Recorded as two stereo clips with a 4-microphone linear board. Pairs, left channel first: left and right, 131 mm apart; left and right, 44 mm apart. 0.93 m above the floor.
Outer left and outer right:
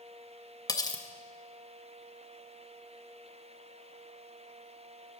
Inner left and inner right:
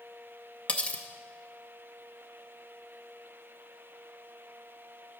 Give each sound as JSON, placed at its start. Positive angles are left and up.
{"t": 0.7, "sound": "cutlery clinking", "side_deg": 30, "distance_m": 0.5}